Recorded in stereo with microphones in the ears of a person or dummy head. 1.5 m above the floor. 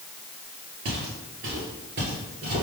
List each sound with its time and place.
0.8 s footsteps: 45° right (ahead or behind), 2.0 m; by 2.6 s 25° right (ahead or behind), 1.9 m